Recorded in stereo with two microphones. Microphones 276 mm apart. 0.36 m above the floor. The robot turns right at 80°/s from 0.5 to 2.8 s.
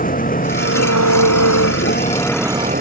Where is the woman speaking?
No woman speaking in this recording.